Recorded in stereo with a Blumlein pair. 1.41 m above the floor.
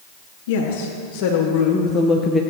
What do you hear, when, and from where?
0.5 s a woman speaking: 50° left, 2.5 m; by 2.4 s 5° left, 1.0 m